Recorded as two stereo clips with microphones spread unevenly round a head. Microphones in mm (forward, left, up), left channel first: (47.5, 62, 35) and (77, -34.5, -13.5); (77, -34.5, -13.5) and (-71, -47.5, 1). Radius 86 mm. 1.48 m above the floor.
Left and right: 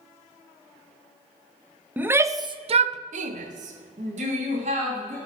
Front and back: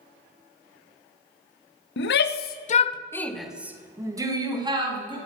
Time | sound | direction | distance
2.0 | a shout | 5° left | 0.9 m